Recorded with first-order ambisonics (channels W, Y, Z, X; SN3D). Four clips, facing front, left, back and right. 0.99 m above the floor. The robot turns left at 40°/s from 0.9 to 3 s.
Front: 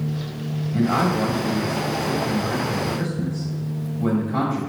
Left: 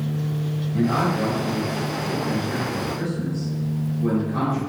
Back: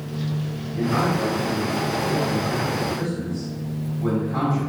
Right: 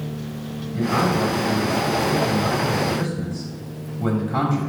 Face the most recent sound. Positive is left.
turn(degrees=-80)